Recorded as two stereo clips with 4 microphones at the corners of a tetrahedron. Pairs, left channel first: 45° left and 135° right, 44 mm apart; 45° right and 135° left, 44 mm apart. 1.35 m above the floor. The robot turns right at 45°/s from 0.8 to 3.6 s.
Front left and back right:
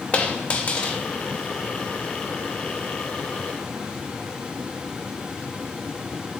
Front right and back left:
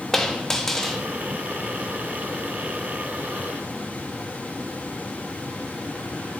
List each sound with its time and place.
0.1 s a dropped coin: 25° left, 0.8 m; by 1.0 s 35° left, 0.8 m